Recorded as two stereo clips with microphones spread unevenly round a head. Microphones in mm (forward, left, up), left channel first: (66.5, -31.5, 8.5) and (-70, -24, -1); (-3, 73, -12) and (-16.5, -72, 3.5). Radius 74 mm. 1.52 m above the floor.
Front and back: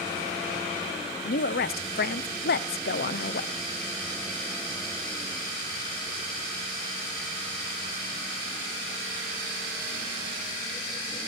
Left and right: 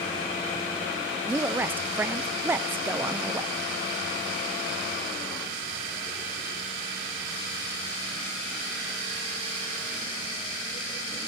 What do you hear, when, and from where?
1.2 s a woman speaking: 15° right, 0.7 m